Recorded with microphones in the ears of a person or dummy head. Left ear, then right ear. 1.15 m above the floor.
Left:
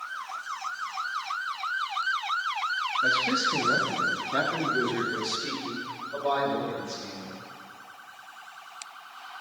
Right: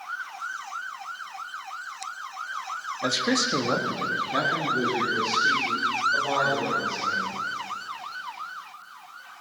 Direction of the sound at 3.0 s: 55° right (ahead or behind).